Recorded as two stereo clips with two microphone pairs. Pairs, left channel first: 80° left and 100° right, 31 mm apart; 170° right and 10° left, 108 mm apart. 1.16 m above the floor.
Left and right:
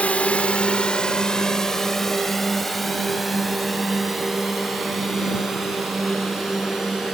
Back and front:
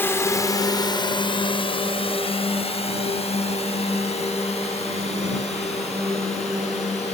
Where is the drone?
120° left; by 7.1 s 175° right.